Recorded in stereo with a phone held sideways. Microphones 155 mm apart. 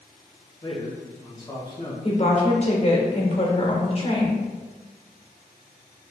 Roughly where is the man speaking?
Left.